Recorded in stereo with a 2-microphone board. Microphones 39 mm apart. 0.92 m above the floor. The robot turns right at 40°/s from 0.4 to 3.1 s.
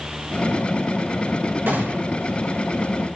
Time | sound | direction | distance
1.7 | a gunshot | 65° right (ahead or behind) | 7.5 m